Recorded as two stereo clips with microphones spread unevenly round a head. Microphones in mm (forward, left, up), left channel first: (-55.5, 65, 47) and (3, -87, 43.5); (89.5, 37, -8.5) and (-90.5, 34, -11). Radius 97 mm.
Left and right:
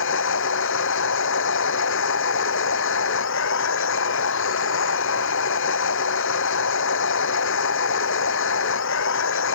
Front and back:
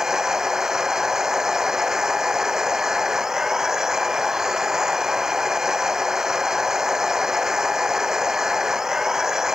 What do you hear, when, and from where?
0.0 s a machine running: 95° left